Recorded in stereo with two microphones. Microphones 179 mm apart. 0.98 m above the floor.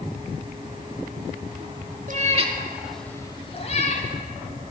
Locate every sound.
2.1 s a cat meowing: 50° right (ahead or behind), 1.1 m; by 4.1 s 50° left (ahead or behind), 1.5 m